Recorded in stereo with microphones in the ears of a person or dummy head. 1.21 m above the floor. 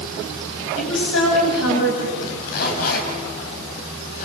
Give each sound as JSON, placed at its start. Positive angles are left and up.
{"t": 0.8, "sound": "a woman speaking", "side_deg": 75, "distance_m": 7.0}
{"t": 2.2, "sound": "a zipper", "side_deg": 55, "distance_m": 4.5}